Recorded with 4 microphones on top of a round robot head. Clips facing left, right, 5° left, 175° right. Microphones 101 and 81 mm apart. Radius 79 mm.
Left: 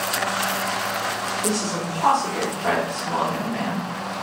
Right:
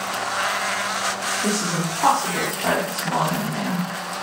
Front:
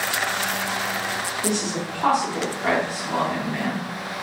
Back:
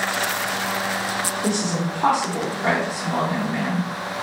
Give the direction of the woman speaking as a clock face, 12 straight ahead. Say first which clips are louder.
Right 2 dB, back 2 dB; 3 o'clock.